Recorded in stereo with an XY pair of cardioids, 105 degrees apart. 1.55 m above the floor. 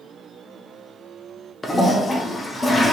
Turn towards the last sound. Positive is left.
turn(degrees=25)